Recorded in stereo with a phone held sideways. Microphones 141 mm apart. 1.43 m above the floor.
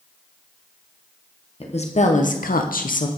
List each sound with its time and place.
1.6 s a woman speaking: 45° left (ahead or behind), 1.0 m; by 3.1 s 65° left (ahead or behind), 0.6 m